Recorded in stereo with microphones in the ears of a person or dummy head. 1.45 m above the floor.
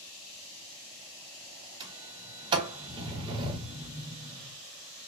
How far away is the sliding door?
About 1.0 m.